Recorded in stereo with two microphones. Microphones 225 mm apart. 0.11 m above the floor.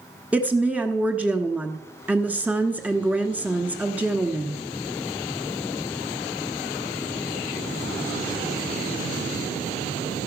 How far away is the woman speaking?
About 1.1 m.